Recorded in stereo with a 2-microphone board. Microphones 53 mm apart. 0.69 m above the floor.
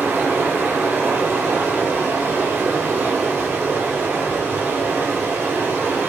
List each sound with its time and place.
0.0 s running water: 40° right (ahead or behind), 0.8 m